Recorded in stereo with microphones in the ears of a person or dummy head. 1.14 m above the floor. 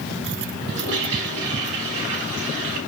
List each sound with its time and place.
0.7 s a toilet flushing: 35° right (ahead or behind), 3 m